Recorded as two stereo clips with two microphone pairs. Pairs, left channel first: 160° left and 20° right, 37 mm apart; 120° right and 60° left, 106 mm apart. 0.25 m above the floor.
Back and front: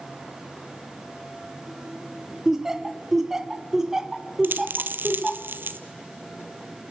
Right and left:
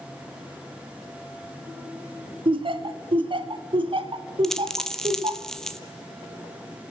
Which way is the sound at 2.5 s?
60° left.